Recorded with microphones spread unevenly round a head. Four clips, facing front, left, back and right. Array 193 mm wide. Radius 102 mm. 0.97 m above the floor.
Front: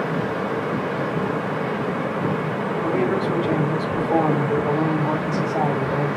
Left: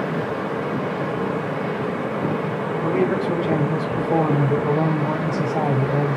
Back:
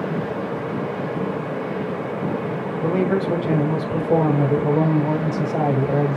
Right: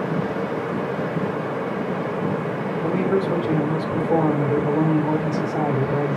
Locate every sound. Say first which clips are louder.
2.8 s a man speaking: even, back 2 dB; 165° left, 5 m